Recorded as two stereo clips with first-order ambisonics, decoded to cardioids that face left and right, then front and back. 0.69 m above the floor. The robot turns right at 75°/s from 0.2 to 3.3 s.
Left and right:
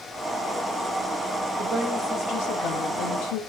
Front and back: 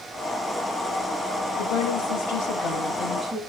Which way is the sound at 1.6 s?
20° right.